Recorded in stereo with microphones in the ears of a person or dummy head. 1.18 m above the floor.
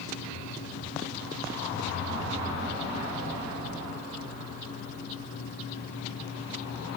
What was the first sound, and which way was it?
Only background noise.